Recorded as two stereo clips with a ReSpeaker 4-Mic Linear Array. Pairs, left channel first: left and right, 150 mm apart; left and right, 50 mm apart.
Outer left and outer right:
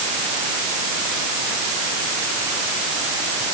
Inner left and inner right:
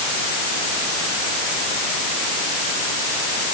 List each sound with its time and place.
Only background noise.